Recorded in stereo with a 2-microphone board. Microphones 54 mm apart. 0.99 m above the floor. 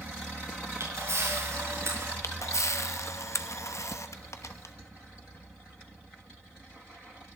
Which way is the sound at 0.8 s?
65° right (ahead or behind).